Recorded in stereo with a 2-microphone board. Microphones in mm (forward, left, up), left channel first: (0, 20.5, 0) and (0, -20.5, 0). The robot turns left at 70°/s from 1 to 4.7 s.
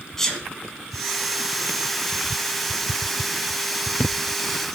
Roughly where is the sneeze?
Centre.